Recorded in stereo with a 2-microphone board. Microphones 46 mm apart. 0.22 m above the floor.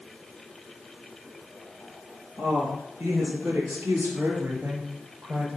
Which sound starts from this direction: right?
A woman speaking, at 2.4 s.